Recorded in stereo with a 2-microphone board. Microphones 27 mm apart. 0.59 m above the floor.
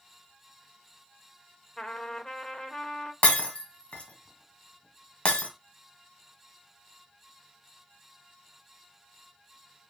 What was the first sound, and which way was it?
A trumpet, 25° left (ahead or behind).